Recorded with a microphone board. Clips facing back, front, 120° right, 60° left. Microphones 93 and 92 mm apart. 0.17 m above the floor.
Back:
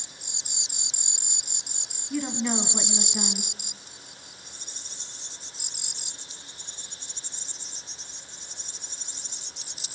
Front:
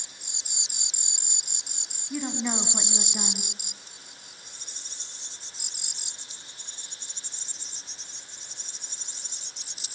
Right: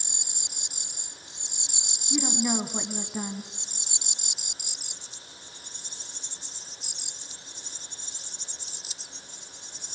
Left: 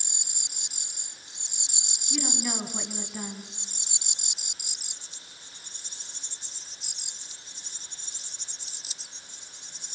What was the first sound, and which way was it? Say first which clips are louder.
A woman speaking: back 2 dB, right 5 dB; 75° right.